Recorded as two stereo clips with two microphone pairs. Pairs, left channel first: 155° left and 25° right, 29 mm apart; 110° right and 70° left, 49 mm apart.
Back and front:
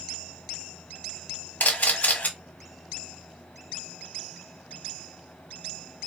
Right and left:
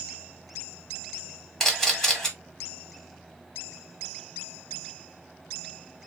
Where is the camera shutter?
165° left, 1.0 m.